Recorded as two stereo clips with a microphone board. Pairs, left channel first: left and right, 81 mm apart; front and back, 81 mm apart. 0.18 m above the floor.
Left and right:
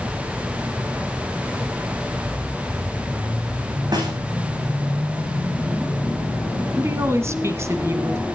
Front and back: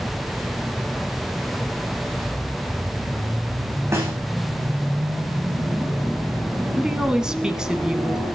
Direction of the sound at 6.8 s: 105° right.